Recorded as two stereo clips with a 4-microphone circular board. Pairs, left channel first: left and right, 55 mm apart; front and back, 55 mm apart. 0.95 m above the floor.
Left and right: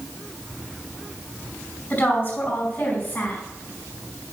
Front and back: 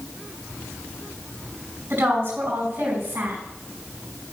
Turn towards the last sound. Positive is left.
turn(degrees=140)